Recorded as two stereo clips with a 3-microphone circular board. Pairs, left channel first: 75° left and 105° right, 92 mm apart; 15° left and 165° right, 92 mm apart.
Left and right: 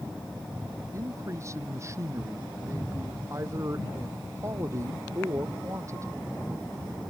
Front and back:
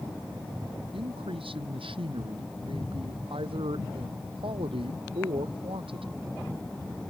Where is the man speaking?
160° right.